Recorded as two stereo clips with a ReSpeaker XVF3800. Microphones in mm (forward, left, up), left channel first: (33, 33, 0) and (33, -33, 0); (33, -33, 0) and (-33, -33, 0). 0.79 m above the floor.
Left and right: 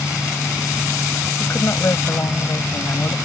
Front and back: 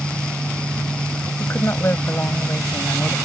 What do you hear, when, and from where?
1.4 s a woman speaking: 50° left